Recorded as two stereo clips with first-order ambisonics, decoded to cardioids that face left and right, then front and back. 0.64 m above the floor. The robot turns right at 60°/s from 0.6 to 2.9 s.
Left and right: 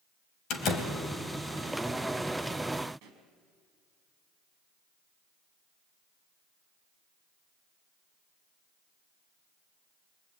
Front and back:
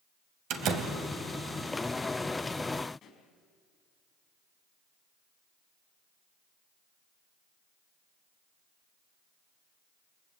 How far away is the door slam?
About 3 m.